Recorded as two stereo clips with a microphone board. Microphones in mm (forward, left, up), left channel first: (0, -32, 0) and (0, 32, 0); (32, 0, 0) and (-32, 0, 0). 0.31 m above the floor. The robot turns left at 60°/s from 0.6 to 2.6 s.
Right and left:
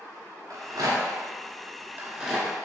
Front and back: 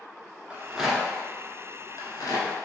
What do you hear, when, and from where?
0.5 s a rattle: 110° left, 0.7 m; by 2.6 s 10° right, 0.7 m